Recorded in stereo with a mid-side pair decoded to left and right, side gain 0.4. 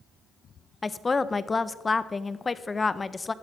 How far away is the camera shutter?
No camera shutter in this recording.